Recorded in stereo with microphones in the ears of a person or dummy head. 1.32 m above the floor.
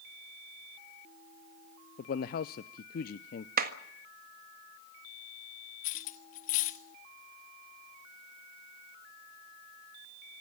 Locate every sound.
2.0 s a man speaking: 50° left (ahead or behind), 0.6 m
3.6 s a clap: 55° right (ahead or behind), 1.6 m
5.8 s cutlery clinking: 45° left (ahead or behind), 1.1 m